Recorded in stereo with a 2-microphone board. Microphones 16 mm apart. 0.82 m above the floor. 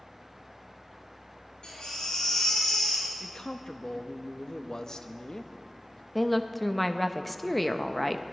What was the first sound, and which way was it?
A baby crying, 75° left (ahead or behind).